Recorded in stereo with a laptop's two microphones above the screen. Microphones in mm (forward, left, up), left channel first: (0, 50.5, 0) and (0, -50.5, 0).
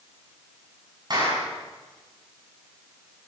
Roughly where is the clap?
Right.